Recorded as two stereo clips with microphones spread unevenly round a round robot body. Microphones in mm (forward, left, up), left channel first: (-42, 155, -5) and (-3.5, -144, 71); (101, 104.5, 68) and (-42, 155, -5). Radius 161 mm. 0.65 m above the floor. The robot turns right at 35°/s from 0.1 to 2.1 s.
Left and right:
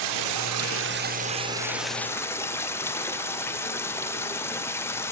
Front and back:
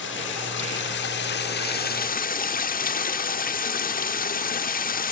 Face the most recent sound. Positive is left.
turn(degrees=20)